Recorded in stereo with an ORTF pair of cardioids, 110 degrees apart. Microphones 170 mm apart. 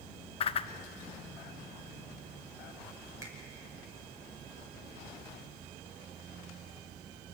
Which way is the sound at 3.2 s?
20° right.